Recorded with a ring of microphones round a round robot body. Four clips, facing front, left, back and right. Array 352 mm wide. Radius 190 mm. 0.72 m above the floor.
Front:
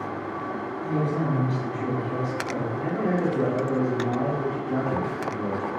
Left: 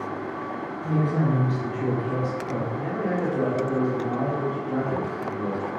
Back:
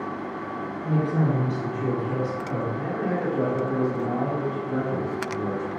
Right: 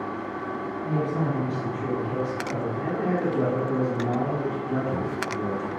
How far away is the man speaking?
About 1.6 m.